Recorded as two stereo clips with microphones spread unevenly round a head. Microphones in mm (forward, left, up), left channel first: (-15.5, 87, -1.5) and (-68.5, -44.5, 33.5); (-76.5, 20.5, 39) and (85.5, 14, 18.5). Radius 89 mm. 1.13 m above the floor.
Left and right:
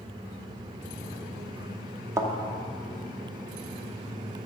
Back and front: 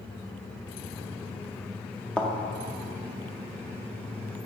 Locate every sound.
2.2 s a thud: 115° right, 0.6 m